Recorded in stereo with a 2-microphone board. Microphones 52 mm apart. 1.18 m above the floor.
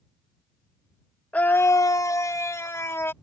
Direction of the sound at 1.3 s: 30° left (ahead or behind).